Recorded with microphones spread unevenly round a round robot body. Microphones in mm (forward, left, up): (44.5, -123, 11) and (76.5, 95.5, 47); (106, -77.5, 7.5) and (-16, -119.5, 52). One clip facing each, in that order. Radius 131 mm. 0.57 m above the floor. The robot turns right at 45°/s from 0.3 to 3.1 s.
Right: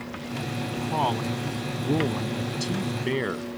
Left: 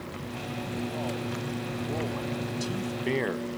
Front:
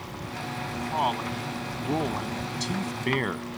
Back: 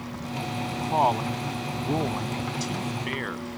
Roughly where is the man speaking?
Behind right.